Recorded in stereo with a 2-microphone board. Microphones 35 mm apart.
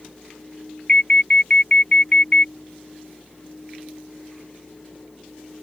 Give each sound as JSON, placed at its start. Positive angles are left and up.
{"t": 0.9, "sound": "an alarm", "side_deg": 30}